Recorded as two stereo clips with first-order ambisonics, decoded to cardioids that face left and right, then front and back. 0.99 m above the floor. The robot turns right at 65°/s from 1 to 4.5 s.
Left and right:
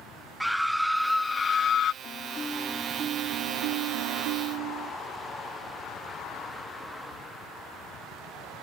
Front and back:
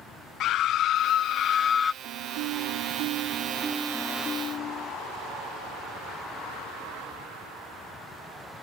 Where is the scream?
Straight ahead; by 1.9 s 60° left.